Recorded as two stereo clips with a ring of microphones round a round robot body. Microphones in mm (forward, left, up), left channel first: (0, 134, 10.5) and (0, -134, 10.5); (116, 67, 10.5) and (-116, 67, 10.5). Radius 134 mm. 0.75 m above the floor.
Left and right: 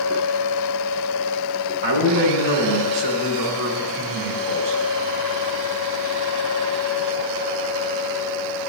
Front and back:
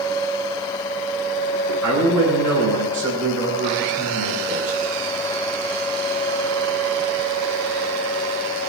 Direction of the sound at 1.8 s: 100° right.